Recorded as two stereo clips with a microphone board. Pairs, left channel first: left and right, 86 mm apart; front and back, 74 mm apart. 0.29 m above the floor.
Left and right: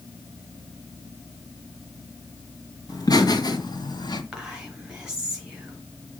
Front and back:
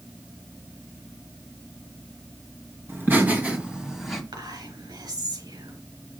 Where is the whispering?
170° right, 3.5 m.